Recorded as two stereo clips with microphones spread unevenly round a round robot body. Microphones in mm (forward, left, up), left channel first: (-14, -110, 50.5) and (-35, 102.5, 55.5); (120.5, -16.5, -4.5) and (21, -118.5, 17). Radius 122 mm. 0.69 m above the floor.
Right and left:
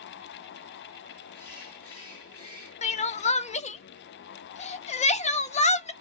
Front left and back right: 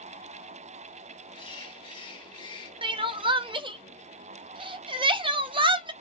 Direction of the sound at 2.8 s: 100° right.